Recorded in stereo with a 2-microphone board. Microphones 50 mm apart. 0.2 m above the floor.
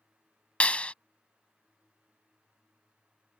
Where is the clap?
25° left (ahead or behind).